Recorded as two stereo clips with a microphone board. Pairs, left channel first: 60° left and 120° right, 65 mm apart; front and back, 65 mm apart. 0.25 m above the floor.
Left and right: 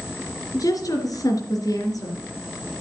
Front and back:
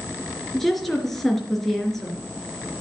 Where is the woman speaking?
85° left, 3.5 m.